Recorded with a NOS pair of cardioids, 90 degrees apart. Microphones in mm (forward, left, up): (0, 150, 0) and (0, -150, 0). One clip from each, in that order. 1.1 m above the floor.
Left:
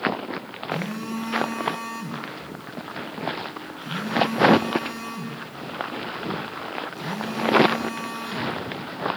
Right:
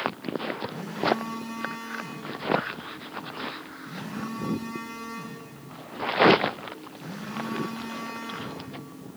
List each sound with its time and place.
0.7 s a phone buzzing: 55° left, 6 m